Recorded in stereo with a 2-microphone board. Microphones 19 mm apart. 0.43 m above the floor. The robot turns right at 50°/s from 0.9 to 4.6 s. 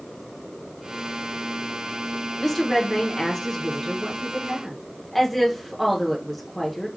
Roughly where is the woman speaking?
Centre.